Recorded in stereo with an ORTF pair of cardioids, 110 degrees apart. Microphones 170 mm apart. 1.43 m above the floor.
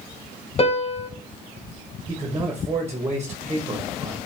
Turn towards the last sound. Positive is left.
turn(degrees=-15)